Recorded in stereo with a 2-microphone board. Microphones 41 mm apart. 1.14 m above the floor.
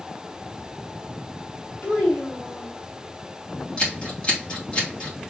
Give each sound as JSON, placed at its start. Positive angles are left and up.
{"t": 1.8, "sound": "a child speaking", "side_deg": 50, "distance_m": 2.5}
{"t": 3.8, "sound": "scissors", "side_deg": 30, "distance_m": 2.5}